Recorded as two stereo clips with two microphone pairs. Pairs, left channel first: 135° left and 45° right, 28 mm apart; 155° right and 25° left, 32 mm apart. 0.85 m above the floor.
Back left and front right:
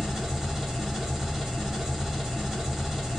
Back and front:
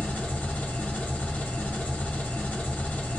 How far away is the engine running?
About 1.0 m.